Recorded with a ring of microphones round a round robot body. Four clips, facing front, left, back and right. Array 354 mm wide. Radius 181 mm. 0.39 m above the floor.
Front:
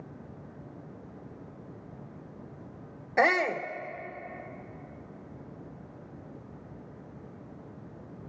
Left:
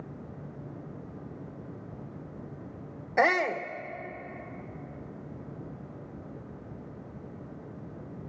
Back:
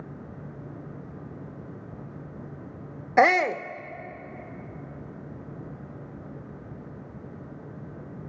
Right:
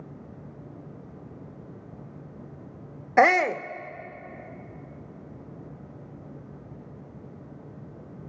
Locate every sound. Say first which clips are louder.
3.2 s a shout: right 6 dB, back 5 dB; 130° right, 0.9 m